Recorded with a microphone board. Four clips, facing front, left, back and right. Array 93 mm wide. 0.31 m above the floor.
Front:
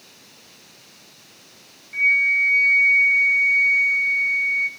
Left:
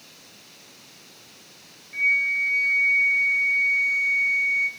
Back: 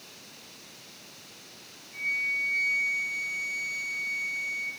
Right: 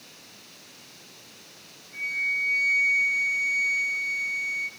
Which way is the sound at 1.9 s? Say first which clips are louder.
Left 6 dB, front 12 dB; 20° left.